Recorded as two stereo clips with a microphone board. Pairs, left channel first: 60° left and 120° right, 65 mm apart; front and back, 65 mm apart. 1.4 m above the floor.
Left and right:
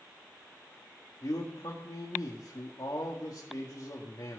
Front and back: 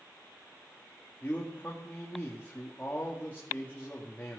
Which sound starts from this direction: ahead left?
A man speaking, at 1.2 s.